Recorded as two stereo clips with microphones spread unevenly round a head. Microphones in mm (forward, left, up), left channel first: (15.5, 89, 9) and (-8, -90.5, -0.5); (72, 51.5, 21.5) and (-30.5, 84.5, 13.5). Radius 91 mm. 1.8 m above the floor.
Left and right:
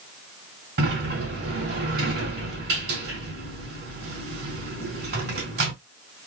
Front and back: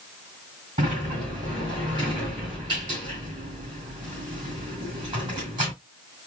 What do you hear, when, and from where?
0.8 s a sliding door: 135° right, 3.5 m